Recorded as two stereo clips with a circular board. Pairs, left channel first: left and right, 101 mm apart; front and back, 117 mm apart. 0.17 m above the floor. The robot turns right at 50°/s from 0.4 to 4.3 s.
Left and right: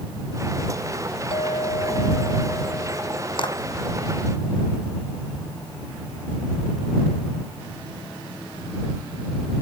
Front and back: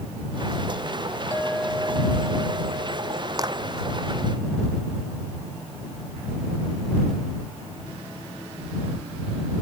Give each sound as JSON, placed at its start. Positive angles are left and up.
{"t": 1.3, "sound": "a clink", "azimuth_deg": 75}
{"t": 3.4, "sound": "a clap", "azimuth_deg": 125}